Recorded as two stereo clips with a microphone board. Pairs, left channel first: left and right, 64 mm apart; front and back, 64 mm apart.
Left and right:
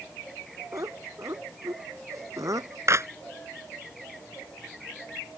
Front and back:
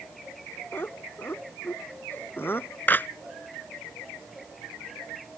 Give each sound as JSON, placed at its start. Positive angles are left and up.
{"t": 0.7, "sound": "laughter", "azimuth_deg": -55}
{"t": 2.9, "sound": "a clap", "azimuth_deg": -55}